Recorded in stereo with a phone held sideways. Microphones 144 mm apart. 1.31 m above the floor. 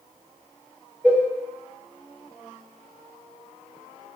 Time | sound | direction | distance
1.0 | a cowbell | 10° right (ahead or behind) | 0.5 m